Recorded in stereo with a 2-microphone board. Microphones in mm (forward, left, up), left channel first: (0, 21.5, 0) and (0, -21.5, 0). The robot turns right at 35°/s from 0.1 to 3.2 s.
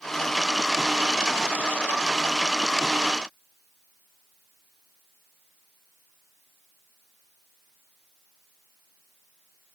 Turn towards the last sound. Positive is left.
No sound to turn to.